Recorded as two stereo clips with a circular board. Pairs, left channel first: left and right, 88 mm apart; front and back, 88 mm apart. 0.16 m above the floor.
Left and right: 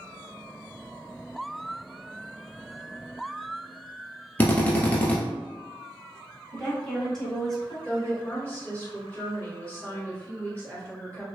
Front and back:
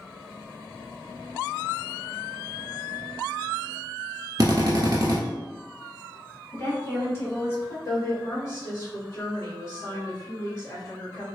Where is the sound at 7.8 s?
30° left, 1.7 m.